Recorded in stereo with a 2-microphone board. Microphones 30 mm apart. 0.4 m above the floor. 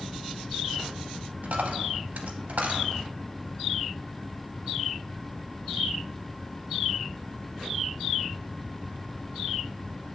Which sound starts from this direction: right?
A dropped coin, at 1.4 s.